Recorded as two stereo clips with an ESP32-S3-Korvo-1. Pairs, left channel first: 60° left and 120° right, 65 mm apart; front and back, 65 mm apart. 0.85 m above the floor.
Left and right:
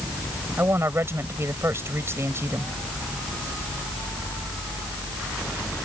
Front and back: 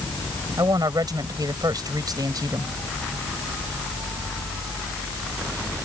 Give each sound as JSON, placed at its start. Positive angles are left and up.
{"t": 0.6, "sound": "a woman speaking", "azimuth_deg": -170}